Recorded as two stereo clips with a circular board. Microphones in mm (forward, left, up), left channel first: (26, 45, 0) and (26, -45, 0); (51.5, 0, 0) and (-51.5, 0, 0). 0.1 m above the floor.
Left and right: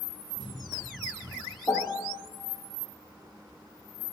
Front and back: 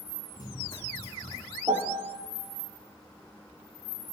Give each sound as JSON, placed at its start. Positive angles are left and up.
{"t": 0.3, "sound": "running footsteps", "azimuth_deg": -50, "distance_m": 2.5}
{"t": 1.7, "sound": "a piano", "azimuth_deg": 145, "distance_m": 1.3}